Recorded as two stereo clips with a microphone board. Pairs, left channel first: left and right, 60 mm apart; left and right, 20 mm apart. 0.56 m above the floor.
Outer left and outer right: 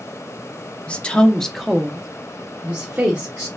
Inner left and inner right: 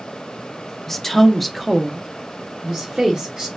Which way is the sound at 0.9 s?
20° left (ahead or behind).